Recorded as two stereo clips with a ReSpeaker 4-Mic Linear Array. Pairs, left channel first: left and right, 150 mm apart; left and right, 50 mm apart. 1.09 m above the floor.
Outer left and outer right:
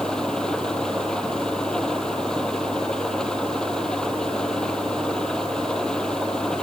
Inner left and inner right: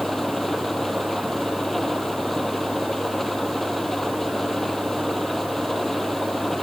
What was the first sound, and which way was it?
An engine running, 5° left (ahead or behind).